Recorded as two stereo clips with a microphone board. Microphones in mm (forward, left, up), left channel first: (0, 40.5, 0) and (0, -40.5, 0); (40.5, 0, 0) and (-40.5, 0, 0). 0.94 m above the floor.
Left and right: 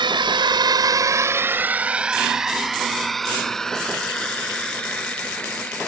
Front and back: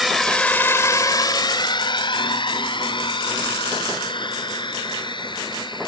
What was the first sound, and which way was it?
A drone, 95° right.